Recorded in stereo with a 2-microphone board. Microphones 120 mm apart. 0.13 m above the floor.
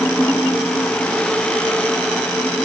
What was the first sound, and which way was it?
Only background noise.